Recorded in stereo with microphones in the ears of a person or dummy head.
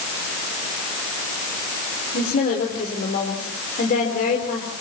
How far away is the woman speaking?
About 4 m.